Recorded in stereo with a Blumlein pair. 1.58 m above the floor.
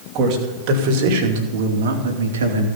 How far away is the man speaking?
About 3 m.